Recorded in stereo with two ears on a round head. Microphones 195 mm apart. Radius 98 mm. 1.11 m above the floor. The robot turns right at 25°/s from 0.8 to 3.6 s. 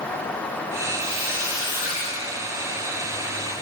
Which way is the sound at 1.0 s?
Centre (ahead or behind).